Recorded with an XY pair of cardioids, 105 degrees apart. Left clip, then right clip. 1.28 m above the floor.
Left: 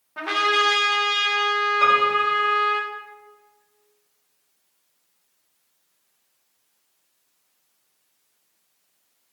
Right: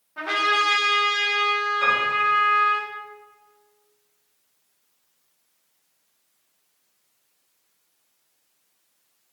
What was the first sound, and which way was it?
A trumpet, 25° left.